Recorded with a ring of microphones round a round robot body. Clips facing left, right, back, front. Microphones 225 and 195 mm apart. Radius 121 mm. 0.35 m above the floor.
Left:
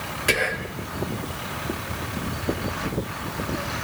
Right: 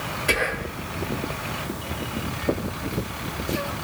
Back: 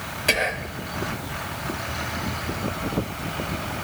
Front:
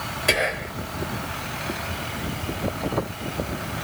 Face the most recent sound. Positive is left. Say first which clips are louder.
# left 1 dB, front 1 dB
turn(degrees=80)